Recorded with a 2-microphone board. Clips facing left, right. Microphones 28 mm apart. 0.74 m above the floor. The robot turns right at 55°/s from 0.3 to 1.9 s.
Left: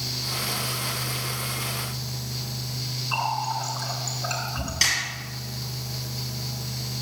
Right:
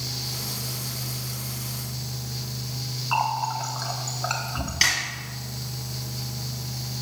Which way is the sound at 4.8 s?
20° right (ahead or behind).